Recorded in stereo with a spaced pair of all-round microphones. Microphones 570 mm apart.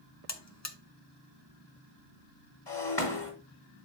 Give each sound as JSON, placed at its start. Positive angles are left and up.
{"t": 0.3, "sound": "a buzzer", "side_deg": 30, "distance_m": 0.9}
{"t": 2.7, "sound": "breaking glass", "side_deg": 45, "distance_m": 2.5}